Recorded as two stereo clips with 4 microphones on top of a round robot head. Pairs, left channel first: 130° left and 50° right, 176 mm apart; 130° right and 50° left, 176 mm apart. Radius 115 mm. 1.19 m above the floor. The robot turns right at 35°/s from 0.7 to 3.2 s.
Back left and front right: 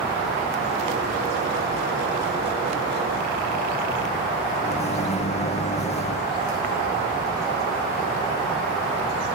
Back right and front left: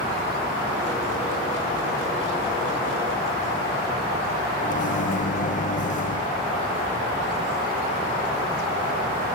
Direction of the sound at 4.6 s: 175° right.